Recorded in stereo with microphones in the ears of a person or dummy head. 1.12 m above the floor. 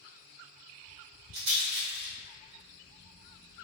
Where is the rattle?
80° right, 1.5 m.